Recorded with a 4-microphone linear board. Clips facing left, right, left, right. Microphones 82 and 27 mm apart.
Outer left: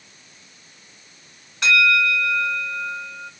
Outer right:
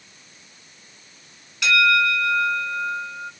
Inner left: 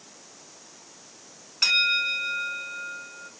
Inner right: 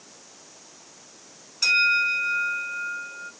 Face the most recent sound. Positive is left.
turn(degrees=40)  # may be behind; listen again after turning